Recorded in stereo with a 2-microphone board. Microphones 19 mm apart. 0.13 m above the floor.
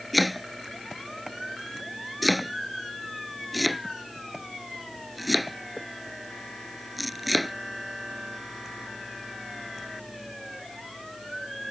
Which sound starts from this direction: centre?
Chopping, at 0.1 s.